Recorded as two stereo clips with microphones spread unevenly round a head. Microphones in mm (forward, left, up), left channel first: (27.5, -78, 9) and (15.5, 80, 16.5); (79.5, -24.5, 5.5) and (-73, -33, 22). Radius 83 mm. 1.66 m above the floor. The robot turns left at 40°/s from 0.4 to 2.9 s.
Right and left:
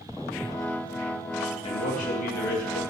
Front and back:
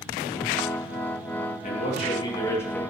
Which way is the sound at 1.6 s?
35° right.